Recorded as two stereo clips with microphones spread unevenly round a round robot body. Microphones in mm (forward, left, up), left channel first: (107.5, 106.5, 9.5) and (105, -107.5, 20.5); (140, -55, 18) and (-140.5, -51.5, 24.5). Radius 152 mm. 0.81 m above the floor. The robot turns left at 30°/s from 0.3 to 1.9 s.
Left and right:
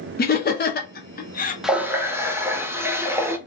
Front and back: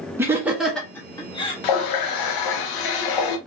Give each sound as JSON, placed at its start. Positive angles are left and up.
{"t": 0.2, "sound": "laughter", "azimuth_deg": 100, "distance_m": 0.7}
{"t": 1.6, "sound": "a running tap", "azimuth_deg": 0, "distance_m": 0.7}